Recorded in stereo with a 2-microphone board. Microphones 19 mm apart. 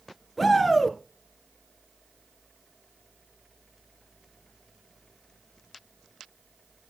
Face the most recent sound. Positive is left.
turn(degrees=0)  # may be behind; listen again after turning